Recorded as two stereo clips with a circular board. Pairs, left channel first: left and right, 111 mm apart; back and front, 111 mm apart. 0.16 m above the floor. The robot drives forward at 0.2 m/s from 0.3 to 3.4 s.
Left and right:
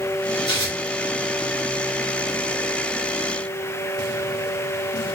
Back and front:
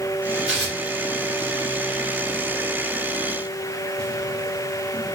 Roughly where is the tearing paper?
Left.